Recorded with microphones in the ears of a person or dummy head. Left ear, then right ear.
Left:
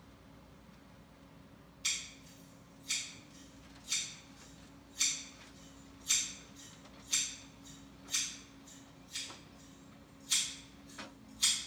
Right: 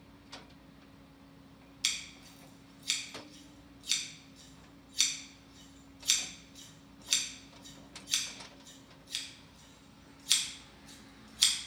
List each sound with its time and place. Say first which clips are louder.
1.8 s scissors: right 3 dB; 55° right (ahead or behind), 0.9 m